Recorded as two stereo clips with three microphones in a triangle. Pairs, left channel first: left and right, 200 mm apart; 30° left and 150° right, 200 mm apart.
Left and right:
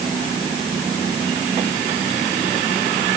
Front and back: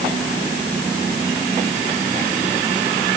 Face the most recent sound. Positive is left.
No sound to turn to.